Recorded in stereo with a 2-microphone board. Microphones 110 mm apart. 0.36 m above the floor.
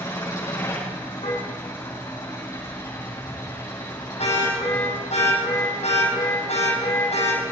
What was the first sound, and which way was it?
An engine running, 30° left (ahead or behind).